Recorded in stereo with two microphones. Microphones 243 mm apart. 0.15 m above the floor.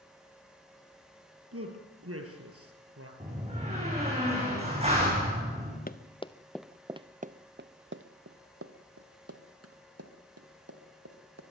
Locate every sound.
1.5 s a man speaking: 65° right (ahead or behind), 4 m
3.2 s a door slam: 25° right (ahead or behind), 8.5 m
5.9 s running footsteps: 35° left (ahead or behind), 0.9 m; by 11.4 s 75° right (ahead or behind), 3.5 m